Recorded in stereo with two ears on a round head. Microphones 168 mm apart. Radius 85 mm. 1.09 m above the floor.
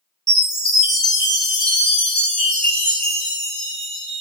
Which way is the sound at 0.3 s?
5° left (ahead or behind).